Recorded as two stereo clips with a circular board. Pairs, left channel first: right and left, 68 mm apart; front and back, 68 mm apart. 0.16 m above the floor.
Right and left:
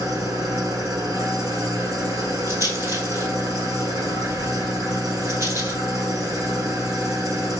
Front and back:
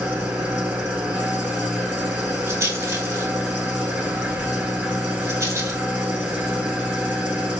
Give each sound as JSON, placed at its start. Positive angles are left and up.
{"t": 0.0, "sound": "an engine running", "azimuth_deg": 115, "distance_m": 1.5}
{"t": 2.5, "sound": "a rattle", "azimuth_deg": 135, "distance_m": 1.9}